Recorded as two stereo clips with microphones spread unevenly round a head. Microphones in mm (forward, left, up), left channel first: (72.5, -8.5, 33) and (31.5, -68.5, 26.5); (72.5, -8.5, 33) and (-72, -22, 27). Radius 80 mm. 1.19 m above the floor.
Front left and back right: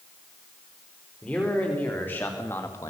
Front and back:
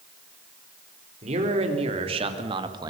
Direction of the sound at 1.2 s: 135° left.